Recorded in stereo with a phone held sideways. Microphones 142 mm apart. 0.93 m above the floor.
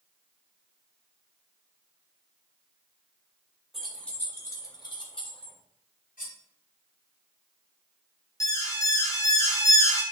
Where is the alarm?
25° left (ahead or behind), 1.2 m.